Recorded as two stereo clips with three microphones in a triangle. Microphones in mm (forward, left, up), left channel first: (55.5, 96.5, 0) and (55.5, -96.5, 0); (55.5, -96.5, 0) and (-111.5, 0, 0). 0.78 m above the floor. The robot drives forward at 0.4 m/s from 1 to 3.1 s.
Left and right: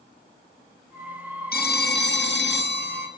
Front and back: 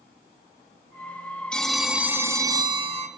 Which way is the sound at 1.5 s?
55° left.